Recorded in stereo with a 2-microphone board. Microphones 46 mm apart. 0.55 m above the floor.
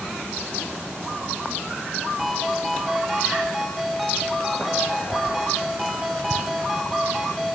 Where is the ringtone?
Centre (ahead or behind), 1.6 m.